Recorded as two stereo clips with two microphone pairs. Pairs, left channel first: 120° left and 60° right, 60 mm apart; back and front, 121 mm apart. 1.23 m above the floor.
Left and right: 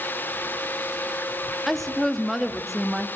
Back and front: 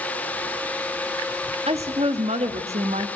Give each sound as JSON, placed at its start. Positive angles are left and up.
{"t": 1.7, "sound": "a woman speaking", "azimuth_deg": 35, "distance_m": 2.5}